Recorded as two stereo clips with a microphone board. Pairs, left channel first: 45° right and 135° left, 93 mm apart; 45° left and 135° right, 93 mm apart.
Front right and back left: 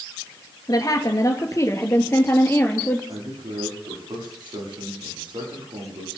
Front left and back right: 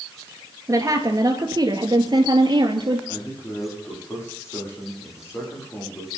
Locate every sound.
0.7 s a woman speaking: 90° right, 2.5 m; by 3.0 s 110° right, 3 m
3.1 s a man speaking: 100° left, 9.5 m